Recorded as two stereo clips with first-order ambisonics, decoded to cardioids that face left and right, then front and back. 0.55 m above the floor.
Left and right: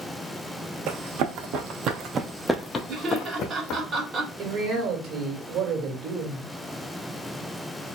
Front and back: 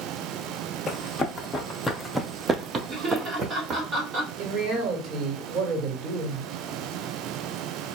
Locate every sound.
0.9 s running footsteps: 70° right, 1.3 m; by 3.8 s 120° left, 1.2 m
2.9 s laughter: 130° right, 1.4 m
4.4 s a man speaking: 130° right, 1.9 m